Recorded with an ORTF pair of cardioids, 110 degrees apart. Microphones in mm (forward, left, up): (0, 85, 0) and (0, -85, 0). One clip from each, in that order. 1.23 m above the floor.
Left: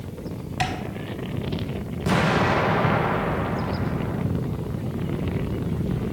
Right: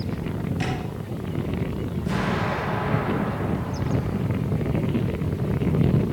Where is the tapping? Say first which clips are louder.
Left 5 dB; 65° left, 4 m.